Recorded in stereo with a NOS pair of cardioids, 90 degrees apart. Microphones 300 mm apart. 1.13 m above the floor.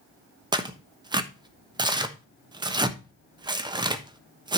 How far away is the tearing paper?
About 1.1 m.